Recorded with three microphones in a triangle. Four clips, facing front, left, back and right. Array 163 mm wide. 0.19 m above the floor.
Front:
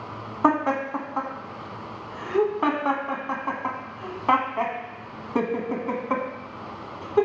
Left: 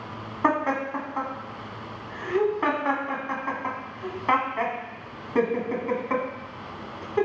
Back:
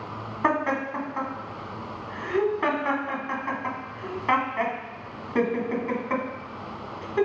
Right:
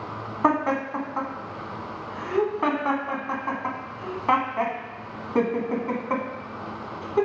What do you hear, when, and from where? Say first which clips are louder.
0.4 s laughter: right 1 dB, front 3 dB; 25° right, 1.3 m